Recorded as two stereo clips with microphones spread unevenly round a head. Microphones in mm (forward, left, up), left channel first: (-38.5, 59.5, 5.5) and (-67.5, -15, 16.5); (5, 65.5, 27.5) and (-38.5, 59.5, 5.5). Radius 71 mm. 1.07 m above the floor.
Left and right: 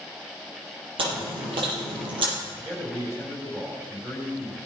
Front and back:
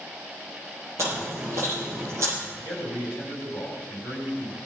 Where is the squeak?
I don't hear a squeak.